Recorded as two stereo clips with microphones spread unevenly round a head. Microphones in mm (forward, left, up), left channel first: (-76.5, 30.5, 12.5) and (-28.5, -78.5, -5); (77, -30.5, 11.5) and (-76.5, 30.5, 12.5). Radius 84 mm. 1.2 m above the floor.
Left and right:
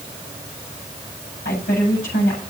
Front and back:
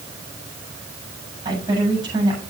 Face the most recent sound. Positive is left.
turn(degrees=95)